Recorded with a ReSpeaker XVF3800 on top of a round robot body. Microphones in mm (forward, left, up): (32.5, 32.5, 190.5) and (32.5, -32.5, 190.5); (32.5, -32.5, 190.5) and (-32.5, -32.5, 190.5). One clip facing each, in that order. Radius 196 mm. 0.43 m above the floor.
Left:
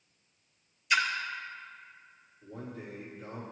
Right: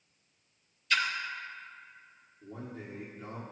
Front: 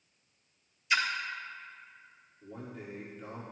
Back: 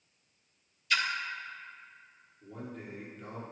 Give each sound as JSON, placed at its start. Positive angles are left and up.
{"t": 0.9, "sound": "a splash", "azimuth_deg": 35, "distance_m": 1.3}
{"t": 2.4, "sound": "a man speaking", "azimuth_deg": -80, "distance_m": 2.0}